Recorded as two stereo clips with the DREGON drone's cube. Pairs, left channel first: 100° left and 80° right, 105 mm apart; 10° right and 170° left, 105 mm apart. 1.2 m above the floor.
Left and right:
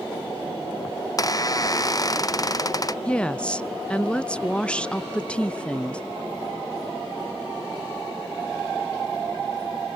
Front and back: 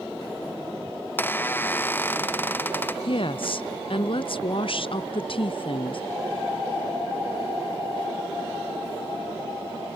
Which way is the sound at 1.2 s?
50° left.